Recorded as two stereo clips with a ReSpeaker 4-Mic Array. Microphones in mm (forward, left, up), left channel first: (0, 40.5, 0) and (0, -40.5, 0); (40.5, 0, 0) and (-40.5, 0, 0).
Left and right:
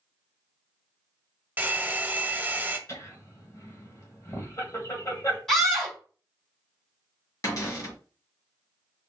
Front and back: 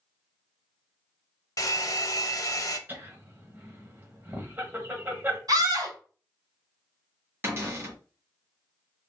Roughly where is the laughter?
Behind left.